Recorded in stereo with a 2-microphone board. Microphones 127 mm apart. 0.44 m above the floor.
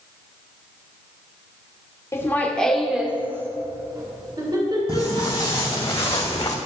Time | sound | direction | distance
2.1 | laughter | 25° left (ahead or behind) | 1.2 m
4.9 | footsteps | 25° left (ahead or behind) | 3 m